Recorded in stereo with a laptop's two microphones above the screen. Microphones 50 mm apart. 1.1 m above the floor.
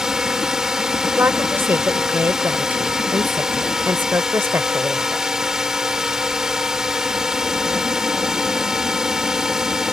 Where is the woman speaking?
50° right (ahead or behind).